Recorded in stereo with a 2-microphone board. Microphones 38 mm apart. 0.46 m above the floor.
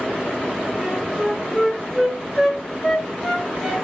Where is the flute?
10° left (ahead or behind), 2.5 m.